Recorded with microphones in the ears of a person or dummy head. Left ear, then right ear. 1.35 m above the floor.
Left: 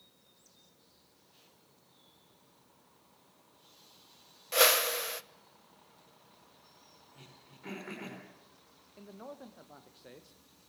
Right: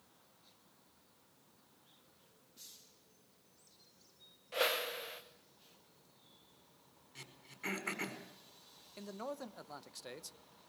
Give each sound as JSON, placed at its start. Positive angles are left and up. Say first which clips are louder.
{"t": 4.5, "sound": "a whoosh", "louder": "left 9 dB", "side_deg": 85, "distance_m": 1.0}
{"t": 7.2, "sound": "throat clearing", "louder": "right 7 dB", "side_deg": -75, "distance_m": 5.0}
{"t": 9.0, "sound": "a man speaking", "louder": "right 4 dB", "side_deg": -80, "distance_m": 1.3}